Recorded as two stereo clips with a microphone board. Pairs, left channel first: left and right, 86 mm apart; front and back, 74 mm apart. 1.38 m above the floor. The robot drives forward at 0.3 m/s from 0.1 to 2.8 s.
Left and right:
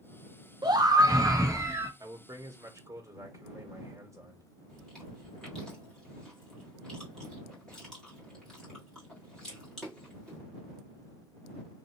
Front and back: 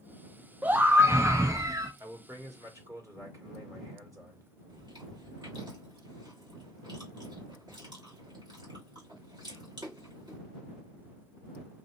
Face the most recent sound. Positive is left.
turn(degrees=175)